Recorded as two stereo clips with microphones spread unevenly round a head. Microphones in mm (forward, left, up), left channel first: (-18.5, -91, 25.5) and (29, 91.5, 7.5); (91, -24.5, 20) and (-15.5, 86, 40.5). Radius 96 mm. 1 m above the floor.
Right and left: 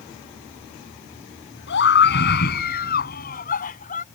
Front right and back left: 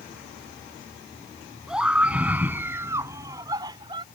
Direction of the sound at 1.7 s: 140° right.